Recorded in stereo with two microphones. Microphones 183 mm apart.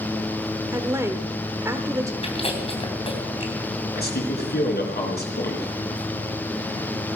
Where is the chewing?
30° left (ahead or behind), 3 m.